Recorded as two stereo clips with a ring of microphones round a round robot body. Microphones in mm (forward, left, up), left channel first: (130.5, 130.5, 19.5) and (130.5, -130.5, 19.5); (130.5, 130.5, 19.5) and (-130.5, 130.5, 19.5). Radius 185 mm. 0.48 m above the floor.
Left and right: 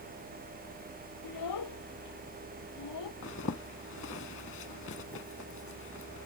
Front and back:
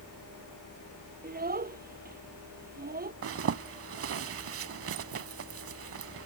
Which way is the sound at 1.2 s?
125° left.